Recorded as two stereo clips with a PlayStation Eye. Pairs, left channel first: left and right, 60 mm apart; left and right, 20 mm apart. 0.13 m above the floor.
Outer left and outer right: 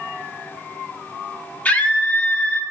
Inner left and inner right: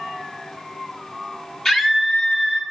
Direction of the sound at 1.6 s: 25° left (ahead or behind).